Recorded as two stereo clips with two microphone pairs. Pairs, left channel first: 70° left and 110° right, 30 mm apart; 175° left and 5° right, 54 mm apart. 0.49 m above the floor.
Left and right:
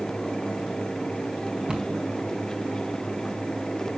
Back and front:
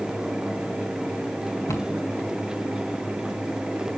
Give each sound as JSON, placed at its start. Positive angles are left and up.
{"t": 1.7, "sound": "a cupboard door", "azimuth_deg": -170, "distance_m": 3.0}